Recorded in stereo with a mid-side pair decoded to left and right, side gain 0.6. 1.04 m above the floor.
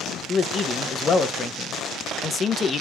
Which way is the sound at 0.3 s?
35° left.